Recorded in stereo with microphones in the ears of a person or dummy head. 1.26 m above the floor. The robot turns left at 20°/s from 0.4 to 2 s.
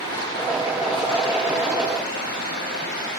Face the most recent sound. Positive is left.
turn(degrees=125)